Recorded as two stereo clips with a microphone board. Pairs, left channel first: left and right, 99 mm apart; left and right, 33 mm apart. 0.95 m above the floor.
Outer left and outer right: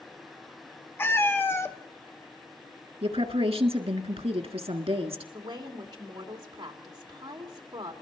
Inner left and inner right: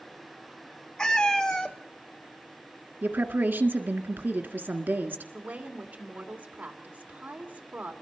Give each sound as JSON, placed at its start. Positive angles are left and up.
{"t": 1.0, "sound": "a cat meowing", "side_deg": 20, "distance_m": 0.9}
{"t": 3.0, "sound": "a woman speaking", "side_deg": -75, "distance_m": 1.8}
{"t": 5.3, "sound": "a woman speaking", "side_deg": -45, "distance_m": 2.5}